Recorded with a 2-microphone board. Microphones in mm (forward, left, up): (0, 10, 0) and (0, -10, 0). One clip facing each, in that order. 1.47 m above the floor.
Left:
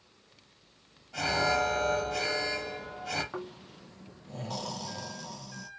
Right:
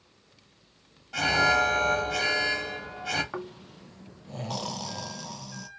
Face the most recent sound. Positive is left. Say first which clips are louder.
# right 2 dB
turn(degrees=-30)  # may be behind; listen again after turning